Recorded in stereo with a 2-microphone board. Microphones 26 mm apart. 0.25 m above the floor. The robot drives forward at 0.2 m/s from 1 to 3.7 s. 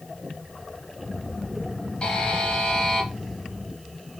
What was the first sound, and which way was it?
A buzzer, 30° left (ahead or behind).